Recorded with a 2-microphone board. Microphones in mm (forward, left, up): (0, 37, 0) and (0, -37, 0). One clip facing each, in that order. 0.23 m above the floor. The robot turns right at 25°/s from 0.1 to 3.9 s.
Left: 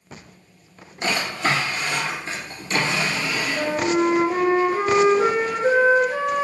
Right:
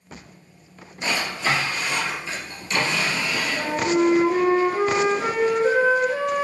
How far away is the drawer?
About 1.4 m.